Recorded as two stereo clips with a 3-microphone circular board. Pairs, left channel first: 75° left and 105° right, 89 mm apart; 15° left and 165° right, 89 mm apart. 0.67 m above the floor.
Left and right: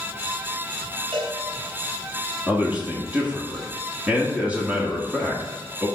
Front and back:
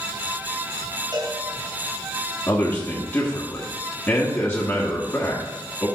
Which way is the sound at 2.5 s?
40° right.